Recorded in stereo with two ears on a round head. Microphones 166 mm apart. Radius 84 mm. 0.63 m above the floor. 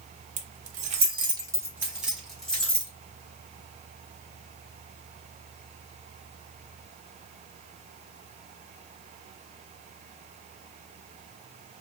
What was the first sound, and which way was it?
Keys jangling, 45° right (ahead or behind).